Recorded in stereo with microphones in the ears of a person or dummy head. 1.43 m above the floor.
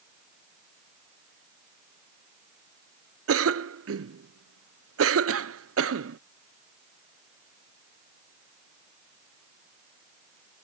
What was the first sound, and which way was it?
A cough, 70° right (ahead or behind).